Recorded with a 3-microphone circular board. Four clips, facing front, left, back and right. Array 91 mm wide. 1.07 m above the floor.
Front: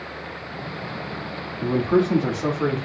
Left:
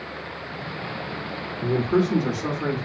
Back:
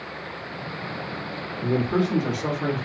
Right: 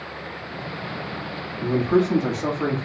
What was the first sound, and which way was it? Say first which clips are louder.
A man speaking: right 2 dB, front 3 dB; 30° right.